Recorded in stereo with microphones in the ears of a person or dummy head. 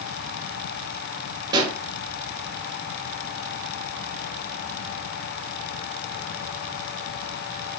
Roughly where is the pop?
Right.